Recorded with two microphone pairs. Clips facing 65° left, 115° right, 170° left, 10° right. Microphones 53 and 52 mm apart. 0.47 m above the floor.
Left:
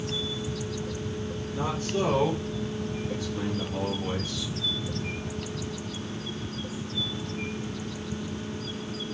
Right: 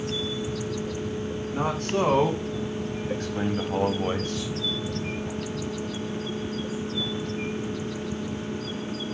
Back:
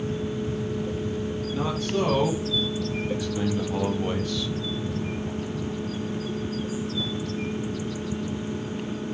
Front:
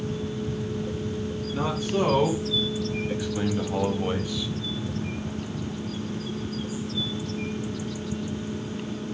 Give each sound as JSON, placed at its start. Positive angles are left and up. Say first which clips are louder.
{"t": 1.5, "sound": "a man speaking", "louder": "right 3 dB, front 1 dB", "azimuth_deg": -85, "distance_m": 4.0}